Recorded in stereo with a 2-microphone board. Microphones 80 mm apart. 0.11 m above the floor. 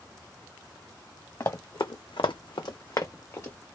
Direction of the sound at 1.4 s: 40° left (ahead or behind).